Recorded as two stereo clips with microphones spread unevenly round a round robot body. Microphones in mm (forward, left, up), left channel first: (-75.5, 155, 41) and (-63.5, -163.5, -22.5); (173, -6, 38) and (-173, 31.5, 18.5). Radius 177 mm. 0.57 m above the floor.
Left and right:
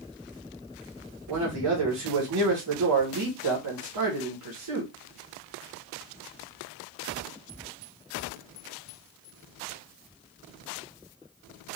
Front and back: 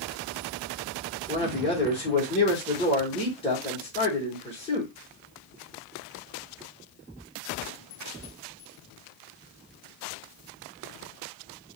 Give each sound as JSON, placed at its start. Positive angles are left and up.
{"t": 1.3, "sound": "a man speaking", "azimuth_deg": -80, "distance_m": 1.6}